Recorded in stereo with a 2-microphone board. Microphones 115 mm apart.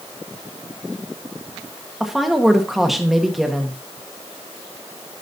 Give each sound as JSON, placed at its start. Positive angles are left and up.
{"t": 2.0, "sound": "a woman speaking", "side_deg": 0, "distance_m": 1.4}